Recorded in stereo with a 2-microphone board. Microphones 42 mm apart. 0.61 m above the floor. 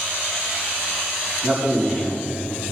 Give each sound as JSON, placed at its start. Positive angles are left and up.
{"t": 1.4, "sound": "a man speaking", "side_deg": -30, "distance_m": 5.0}